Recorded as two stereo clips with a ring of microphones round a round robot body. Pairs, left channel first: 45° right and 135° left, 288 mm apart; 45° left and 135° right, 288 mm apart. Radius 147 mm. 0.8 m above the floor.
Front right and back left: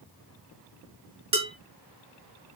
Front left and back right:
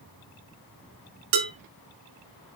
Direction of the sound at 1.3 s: 155° right.